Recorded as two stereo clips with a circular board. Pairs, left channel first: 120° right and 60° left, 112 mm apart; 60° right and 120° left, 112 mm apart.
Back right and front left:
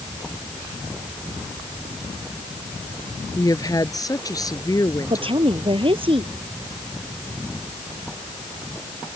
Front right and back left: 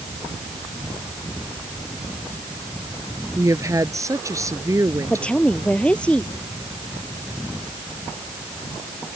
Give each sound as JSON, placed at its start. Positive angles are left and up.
{"t": 3.4, "sound": "a woman speaking", "azimuth_deg": -175}
{"t": 5.1, "sound": "a woman speaking", "azimuth_deg": 20}